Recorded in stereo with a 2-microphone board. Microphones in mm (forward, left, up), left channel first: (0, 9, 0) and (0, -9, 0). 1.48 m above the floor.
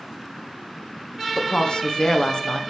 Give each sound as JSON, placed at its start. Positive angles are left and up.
{"t": 1.4, "sound": "a woman speaking", "side_deg": 65, "distance_m": 1.1}